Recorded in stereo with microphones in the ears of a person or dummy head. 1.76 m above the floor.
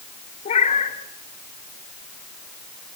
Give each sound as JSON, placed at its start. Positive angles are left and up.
{"t": 0.5, "sound": "a cat meowing", "side_deg": 40, "distance_m": 3.0}